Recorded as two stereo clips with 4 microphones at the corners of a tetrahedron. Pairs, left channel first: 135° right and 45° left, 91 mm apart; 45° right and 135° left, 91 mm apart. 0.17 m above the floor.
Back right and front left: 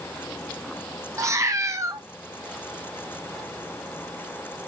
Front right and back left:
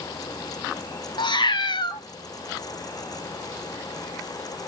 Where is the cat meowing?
10° right, 0.8 m.